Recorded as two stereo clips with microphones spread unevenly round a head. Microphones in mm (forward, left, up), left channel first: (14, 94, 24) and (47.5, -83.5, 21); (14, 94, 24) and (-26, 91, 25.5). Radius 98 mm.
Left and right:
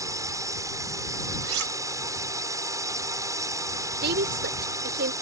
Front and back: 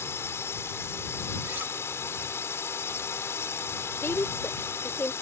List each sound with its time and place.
0.0 s a drone: 5° right
1.4 s cutlery clinking: 105° right
4.0 s a woman speaking: 50° right